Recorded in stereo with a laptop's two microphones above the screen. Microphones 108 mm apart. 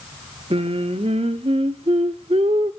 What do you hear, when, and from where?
0.5 s singing: 65° right (ahead or behind), 0.9 m